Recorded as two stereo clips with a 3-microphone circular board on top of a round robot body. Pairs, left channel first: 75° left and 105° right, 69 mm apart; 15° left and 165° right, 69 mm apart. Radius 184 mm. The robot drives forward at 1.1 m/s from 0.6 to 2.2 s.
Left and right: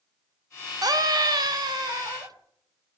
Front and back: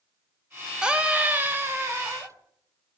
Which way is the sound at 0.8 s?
85° right.